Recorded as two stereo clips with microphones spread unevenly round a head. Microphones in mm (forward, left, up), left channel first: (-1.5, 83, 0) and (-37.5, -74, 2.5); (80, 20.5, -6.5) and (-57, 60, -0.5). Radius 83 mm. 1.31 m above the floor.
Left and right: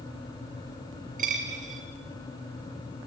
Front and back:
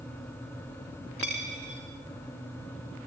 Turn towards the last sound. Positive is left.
turn(degrees=-140)